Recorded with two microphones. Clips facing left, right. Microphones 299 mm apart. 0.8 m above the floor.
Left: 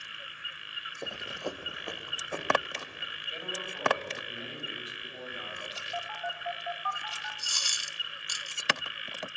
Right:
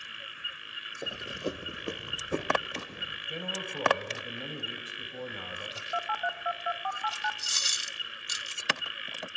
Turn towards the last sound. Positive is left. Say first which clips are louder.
# right 1 dB
turn(degrees=-25)  # may be behind; listen again after turning